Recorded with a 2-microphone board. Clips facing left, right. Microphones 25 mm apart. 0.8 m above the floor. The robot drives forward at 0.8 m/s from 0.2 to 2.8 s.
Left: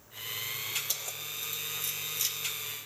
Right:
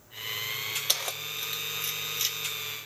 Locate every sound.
0.9 s keys jangling: 55° right (ahead or behind), 0.5 m; by 2.4 s 20° right (ahead or behind), 1.2 m